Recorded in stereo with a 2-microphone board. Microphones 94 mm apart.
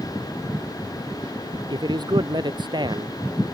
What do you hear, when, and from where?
1.7 s a man speaking: 55° right (ahead or behind)